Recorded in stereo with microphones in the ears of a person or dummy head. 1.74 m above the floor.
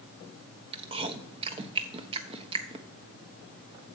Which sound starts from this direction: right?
Chewing, at 0.7 s.